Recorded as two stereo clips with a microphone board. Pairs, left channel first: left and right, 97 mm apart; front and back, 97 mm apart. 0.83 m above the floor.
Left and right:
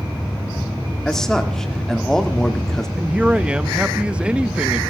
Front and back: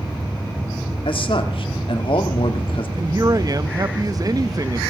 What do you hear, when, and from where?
1.1 s a man speaking: 5° left, 2.5 m
3.0 s a man speaking: 165° right, 0.7 m